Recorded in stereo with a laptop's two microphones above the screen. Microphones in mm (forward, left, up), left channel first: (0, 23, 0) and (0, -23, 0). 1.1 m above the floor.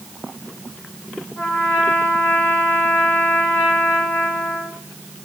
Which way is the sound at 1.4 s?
45° left (ahead or behind).